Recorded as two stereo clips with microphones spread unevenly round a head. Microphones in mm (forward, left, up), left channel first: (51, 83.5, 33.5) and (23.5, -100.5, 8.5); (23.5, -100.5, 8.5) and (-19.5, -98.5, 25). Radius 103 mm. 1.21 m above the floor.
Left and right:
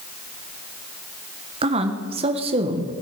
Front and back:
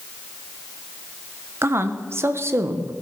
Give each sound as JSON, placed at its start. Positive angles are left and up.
{"t": 1.6, "sound": "a woman speaking", "azimuth_deg": -150, "distance_m": 1.2}